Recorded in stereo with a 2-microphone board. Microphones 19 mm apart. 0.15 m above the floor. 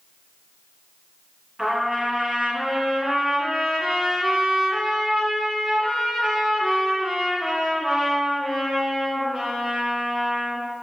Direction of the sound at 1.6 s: 25° right (ahead or behind).